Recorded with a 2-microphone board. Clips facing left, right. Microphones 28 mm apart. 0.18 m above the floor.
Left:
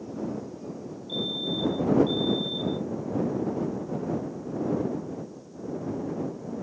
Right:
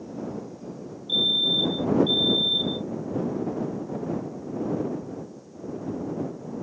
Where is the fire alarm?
45° right (ahead or behind).